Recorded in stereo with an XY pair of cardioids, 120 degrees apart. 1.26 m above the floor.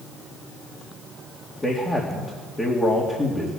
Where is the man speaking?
20° left, 2.5 m.